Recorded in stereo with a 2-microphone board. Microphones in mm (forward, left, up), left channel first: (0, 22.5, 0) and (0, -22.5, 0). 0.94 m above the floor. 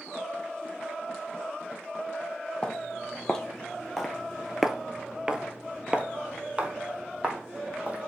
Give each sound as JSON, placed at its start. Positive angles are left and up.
{"t": 2.6, "sound": "footsteps", "side_deg": 15, "distance_m": 1.7}